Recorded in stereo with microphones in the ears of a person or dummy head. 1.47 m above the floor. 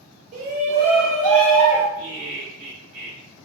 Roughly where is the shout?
Right.